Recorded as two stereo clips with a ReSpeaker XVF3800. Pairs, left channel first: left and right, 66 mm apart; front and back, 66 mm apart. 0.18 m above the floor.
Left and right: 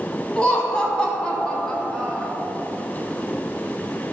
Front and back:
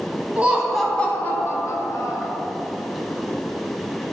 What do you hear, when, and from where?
0.4 s laughter: 145° left, 1.0 m; by 2.3 s 10° left, 1.8 m